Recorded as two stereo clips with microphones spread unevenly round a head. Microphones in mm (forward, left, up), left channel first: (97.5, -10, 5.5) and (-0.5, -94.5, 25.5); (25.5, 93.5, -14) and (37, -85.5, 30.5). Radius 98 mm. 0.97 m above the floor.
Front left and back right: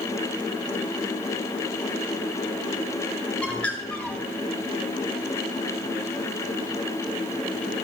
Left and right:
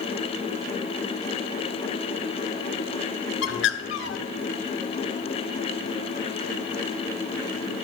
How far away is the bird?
About 0.9 m.